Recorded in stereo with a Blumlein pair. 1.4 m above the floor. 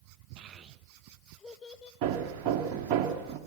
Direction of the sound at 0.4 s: 35° right.